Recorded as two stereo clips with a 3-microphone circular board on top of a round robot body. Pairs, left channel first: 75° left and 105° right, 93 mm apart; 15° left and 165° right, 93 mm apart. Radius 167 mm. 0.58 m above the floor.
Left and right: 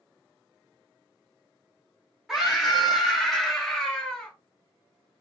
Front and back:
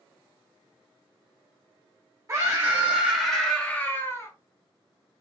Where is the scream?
175° left, 1.2 m; by 4.3 s straight ahead, 1.2 m.